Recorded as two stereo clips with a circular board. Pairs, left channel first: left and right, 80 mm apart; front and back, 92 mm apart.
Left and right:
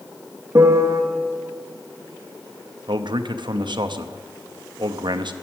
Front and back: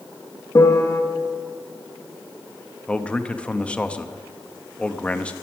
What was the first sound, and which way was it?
A piano, 50° right.